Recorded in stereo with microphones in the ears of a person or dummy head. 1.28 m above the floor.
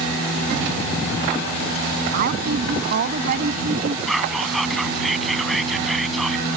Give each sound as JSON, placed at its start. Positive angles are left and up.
{"t": 2.1, "sound": "a woman speaking", "side_deg": -55}
{"t": 4.1, "sound": "whispering", "side_deg": -5}